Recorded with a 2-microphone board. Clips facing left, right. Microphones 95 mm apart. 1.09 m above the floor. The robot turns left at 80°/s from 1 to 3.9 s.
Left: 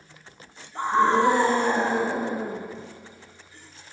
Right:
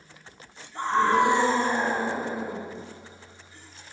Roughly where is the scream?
Behind.